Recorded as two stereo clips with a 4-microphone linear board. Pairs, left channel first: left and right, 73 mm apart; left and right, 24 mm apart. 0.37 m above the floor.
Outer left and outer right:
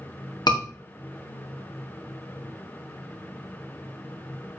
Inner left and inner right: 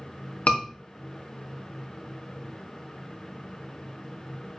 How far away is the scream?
About 3.5 m.